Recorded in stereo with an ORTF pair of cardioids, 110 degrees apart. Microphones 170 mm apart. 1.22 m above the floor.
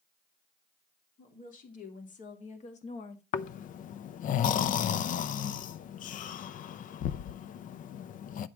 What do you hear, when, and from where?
1.2 s a woman speaking: 55° left, 3 m; by 3.2 s 40° left, 1.5 m
3.3 s snoring: 55° left, 0.5 m